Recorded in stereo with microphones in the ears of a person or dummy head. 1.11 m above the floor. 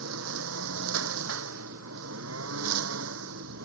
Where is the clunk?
I don't hear a clunk.